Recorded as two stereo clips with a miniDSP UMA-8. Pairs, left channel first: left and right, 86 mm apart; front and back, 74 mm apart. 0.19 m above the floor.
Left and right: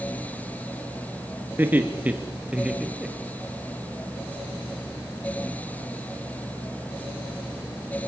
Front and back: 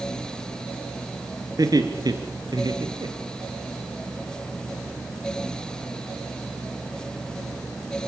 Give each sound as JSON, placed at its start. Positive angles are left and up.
{"t": 1.6, "sound": "laughter", "azimuth_deg": -155, "distance_m": 3.0}